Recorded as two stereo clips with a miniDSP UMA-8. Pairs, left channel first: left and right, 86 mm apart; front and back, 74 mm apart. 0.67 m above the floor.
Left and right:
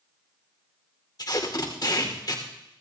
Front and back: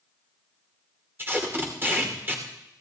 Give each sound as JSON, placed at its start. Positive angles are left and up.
{"t": 1.2, "sound": "tape being pulled", "azimuth_deg": 125, "distance_m": 2.5}